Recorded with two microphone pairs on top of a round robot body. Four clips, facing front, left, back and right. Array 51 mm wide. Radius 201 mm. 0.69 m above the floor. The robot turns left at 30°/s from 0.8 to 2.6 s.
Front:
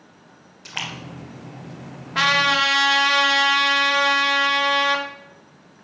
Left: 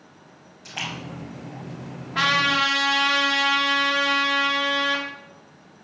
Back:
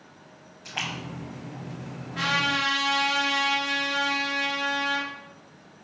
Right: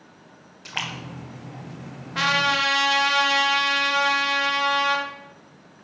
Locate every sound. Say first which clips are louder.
0.7 s a splash: right 1 dB, front 1 dB; 60° right, 3.5 m; by 2.8 s 110° right, 3.5 m
2.1 s a trumpet: left 1 dB, front 7 dB; straight ahead, 3 m; by 5.0 s 10° right, 3 m